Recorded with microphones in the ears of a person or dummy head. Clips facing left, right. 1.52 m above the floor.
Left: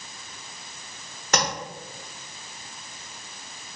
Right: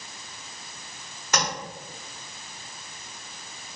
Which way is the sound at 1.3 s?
45° left (ahead or behind).